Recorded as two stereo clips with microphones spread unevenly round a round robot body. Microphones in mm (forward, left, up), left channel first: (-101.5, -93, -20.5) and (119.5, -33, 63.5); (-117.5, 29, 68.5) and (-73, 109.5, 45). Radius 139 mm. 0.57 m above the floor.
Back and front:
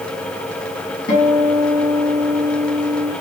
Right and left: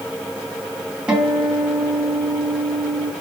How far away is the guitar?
About 4 m.